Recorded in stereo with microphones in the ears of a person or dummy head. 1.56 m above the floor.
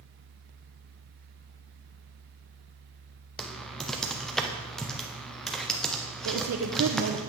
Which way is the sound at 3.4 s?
Centre (ahead or behind).